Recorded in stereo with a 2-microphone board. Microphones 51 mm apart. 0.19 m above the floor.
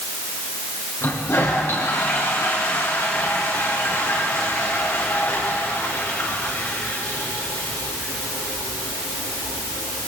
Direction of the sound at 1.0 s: 60° left (ahead or behind).